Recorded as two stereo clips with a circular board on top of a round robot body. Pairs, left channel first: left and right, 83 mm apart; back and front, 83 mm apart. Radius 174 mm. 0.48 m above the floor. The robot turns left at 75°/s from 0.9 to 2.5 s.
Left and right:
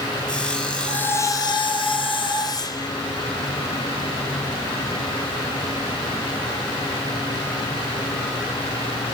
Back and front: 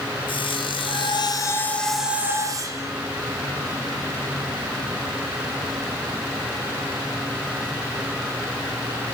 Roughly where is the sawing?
Behind.